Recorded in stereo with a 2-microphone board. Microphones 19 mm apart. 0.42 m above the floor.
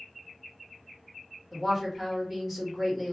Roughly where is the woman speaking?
Centre.